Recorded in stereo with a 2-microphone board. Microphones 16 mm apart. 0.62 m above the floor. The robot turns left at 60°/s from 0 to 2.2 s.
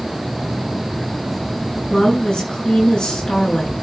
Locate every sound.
1.9 s a woman speaking: 60° left (ahead or behind), 7.5 m; by 3.7 s 75° left (ahead or behind), 7.5 m